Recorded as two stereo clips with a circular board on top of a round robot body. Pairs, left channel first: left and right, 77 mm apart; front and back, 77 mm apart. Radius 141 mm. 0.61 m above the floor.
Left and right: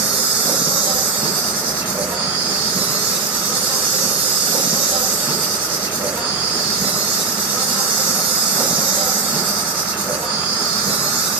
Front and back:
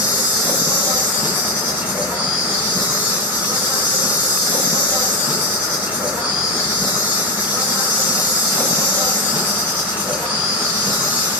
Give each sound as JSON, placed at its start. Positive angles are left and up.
{"t": 0.0, "sound": "an insect", "azimuth_deg": -115, "distance_m": 1.1}